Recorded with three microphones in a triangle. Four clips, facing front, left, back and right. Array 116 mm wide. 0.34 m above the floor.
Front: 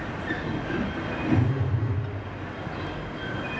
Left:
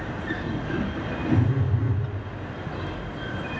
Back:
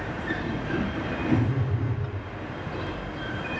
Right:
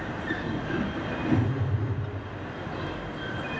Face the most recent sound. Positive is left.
turn(degrees=70)